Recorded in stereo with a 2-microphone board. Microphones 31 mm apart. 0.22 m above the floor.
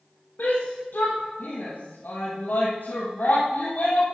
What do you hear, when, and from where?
0.4 s a shout: 80° left, 5.5 m; by 4.0 s 60° left (ahead or behind), 5 m